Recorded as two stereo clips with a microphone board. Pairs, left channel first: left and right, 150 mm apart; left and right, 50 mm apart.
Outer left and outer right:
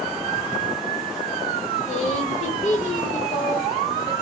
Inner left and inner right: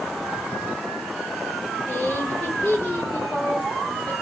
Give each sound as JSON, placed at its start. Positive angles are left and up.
{"t": 1.9, "sound": "a woman speaking", "side_deg": 50, "distance_m": 1.7}